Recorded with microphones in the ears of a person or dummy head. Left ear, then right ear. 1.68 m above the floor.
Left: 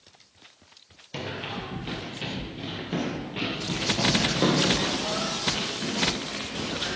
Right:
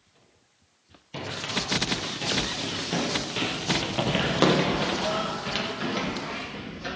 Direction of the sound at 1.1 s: 5° left (ahead or behind).